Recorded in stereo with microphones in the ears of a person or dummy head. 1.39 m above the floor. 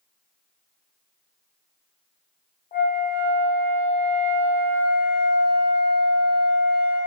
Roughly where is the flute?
Left.